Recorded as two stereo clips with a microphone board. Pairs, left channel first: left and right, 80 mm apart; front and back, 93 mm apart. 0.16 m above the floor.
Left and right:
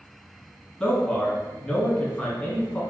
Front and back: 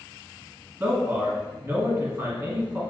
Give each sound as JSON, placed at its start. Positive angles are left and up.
{"t": 0.8, "sound": "a man speaking", "azimuth_deg": 145, "distance_m": 1.2}